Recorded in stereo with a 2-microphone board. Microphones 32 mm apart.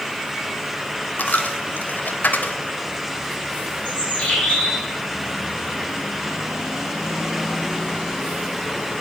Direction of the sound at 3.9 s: 45° left (ahead or behind).